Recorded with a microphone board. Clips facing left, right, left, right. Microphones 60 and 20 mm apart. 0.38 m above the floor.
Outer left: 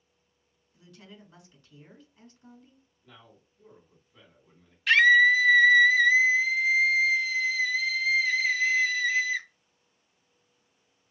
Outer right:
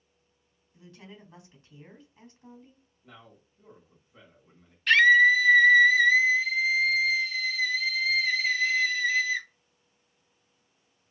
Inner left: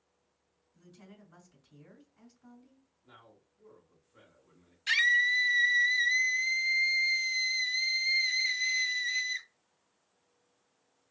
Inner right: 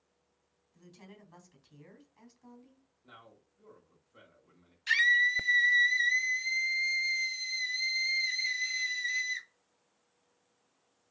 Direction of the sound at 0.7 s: 25° right (ahead or behind).